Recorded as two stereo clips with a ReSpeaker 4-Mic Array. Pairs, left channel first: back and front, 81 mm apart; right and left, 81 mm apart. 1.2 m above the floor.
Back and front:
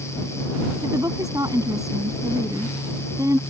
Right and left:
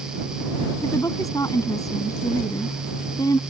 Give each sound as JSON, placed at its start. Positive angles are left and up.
{"t": 0.8, "sound": "a woman speaking", "azimuth_deg": -45}